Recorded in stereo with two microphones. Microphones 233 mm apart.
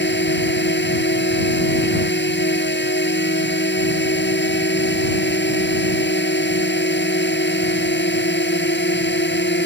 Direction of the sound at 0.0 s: 50° left (ahead or behind).